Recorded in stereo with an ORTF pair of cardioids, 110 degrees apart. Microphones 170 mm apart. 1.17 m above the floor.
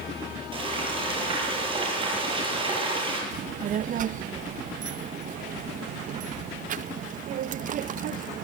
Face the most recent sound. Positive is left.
turn(degrees=-50)